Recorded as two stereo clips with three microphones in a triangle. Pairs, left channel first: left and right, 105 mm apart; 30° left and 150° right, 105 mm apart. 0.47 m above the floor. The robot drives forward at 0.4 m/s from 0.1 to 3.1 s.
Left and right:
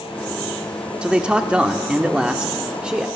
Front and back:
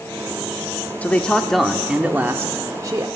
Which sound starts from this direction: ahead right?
A man speaking, at 1.0 s.